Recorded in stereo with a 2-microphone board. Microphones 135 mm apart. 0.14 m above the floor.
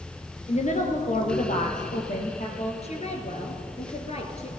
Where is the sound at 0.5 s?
60° left (ahead or behind), 2.5 m; by 2.7 s 65° left (ahead or behind), 3.5 m.